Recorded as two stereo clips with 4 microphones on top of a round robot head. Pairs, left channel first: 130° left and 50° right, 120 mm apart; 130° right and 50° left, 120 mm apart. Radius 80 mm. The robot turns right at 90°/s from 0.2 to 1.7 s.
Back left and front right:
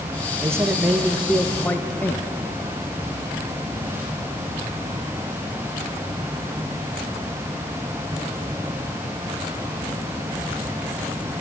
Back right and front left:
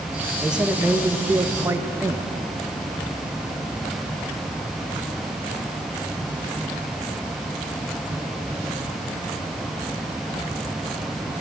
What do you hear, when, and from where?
0.4 s a man speaking: 30° right, 0.8 m; by 2.3 s 85° left, 0.8 m